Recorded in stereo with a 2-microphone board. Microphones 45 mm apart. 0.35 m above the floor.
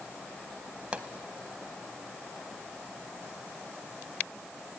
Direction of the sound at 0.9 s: 25° right (ahead or behind).